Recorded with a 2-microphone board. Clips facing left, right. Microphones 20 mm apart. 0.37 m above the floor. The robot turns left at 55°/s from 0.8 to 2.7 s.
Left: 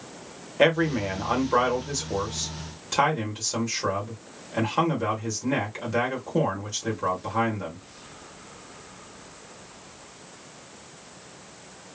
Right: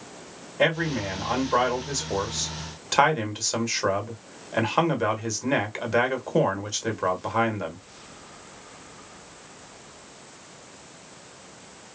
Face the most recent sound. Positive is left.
turn(degrees=-50)